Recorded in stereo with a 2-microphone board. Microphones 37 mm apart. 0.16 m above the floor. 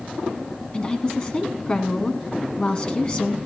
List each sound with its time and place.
0.7 s a woman speaking: 25° left (ahead or behind), 1.2 m